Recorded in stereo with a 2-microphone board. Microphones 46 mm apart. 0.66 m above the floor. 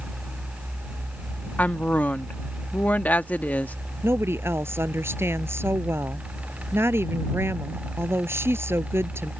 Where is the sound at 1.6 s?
40° left (ahead or behind).